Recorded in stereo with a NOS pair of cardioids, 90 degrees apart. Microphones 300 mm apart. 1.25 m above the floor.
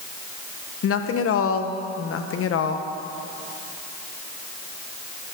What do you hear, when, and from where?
0.8 s a woman speaking: 50° left, 1.0 m